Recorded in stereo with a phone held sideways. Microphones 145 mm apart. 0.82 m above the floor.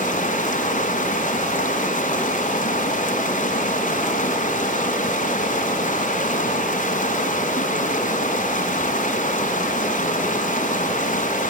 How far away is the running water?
About 2.5 m.